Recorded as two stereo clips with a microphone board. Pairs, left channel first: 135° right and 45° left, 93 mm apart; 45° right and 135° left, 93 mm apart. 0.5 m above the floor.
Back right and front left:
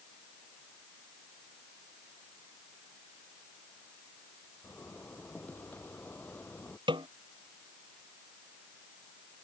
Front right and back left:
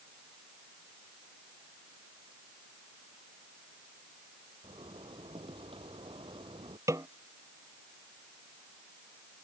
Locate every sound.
4.6 s a zipper: 155° left
6.9 s a snare drum: 80° left